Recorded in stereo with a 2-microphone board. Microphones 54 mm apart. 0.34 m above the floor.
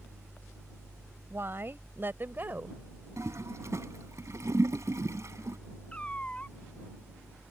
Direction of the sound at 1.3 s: 50° right (ahead or behind).